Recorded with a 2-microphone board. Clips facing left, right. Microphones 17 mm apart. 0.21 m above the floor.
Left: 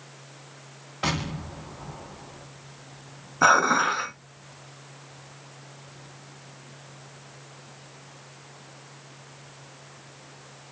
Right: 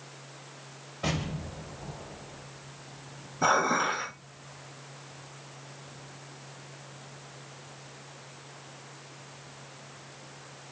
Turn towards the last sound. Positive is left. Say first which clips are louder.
# left 6 dB
turn(degrees=55)  # may be behind; listen again after turning